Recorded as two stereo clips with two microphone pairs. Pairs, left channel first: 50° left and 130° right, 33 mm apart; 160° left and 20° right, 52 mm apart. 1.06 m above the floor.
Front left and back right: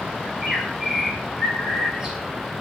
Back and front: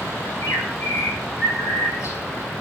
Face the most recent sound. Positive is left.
turn(degrees=155)